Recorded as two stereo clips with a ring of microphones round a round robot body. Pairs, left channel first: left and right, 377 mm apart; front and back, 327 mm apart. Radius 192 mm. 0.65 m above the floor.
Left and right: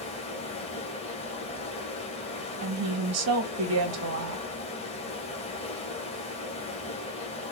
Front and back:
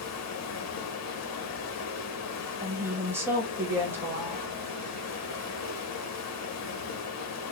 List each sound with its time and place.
0.0 s running water: 20° left, 1.0 m
2.6 s a woman speaking: 100° right, 0.9 m